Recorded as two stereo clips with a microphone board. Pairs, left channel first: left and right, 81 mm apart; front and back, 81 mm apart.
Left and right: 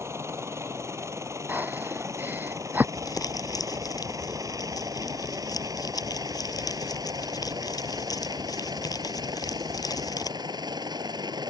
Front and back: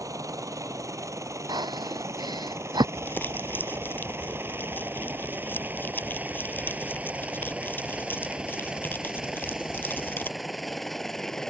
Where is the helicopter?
140° right; by 11.5 s 85° right.